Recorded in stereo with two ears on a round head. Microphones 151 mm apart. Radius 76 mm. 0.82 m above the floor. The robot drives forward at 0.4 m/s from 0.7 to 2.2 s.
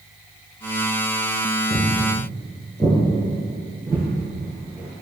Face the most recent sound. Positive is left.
turn(degrees=-25)  # may be behind; listen again after turning